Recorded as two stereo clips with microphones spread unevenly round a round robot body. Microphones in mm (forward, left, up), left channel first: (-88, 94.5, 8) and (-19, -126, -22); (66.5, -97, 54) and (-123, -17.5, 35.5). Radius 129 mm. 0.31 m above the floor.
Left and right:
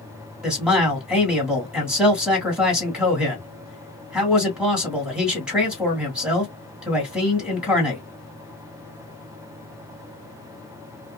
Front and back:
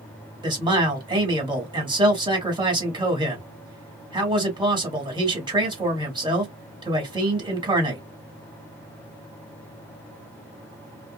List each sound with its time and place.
0.4 s a man speaking: 150° right, 1.8 m